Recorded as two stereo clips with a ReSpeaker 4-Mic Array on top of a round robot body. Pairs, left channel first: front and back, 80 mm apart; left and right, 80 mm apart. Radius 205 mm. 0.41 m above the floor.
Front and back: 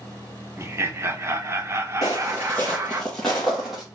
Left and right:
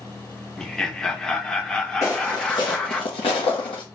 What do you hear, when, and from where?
0.6 s laughter: 165° left, 1.1 m
2.0 s footsteps: 40° left, 0.5 m; by 3.8 s 95° left, 1.2 m